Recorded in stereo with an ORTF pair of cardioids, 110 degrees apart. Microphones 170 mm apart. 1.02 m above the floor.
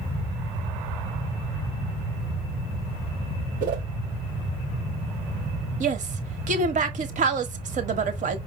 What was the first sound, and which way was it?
A whoosh, 60° right.